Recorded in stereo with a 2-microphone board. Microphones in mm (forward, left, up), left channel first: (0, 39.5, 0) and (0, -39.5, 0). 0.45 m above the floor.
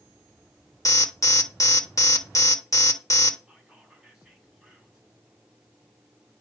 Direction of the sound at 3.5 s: 5° right (ahead or behind).